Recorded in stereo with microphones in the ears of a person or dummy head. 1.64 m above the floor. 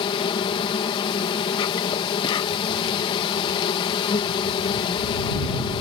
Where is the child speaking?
No child speaking in this recording.